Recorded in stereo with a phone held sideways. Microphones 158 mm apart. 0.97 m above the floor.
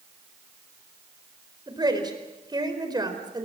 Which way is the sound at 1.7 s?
25° right (ahead or behind).